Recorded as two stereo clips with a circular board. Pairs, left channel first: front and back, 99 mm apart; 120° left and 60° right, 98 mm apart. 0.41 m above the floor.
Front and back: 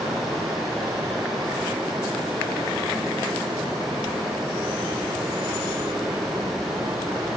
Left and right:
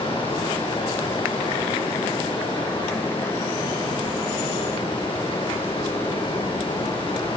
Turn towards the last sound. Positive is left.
turn(degrees=90)